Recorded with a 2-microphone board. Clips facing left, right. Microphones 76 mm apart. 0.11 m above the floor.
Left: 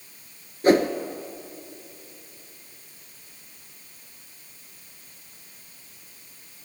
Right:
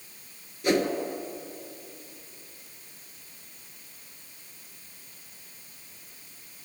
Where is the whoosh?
45° left (ahead or behind), 1.0 m.